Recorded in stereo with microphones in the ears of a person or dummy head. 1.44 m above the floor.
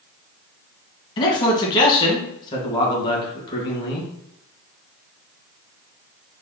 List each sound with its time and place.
1.2 s a man speaking: 25° left (ahead or behind), 1.6 m